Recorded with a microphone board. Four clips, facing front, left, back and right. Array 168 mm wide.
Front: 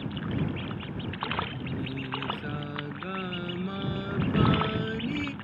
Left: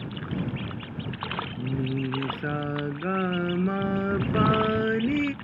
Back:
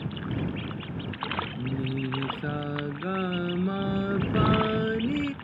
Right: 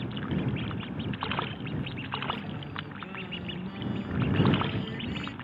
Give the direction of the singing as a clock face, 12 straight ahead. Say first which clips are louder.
Left 8 dB, back 4 dB; 8 o'clock.